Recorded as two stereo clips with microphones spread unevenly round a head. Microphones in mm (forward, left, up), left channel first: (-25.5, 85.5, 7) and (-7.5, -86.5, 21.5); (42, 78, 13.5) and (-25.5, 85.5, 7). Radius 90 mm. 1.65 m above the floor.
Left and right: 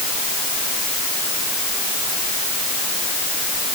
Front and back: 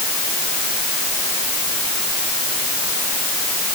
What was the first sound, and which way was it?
Only background noise.